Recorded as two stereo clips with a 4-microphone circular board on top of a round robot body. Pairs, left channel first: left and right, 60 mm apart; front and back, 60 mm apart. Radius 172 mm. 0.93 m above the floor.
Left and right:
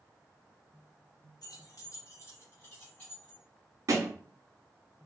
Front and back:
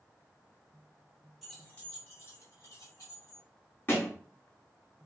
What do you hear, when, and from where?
1.4 s keys jangling: 90° left, 1.2 m; by 3.4 s 25° left, 3 m
3.9 s a thud: 50° right, 0.7 m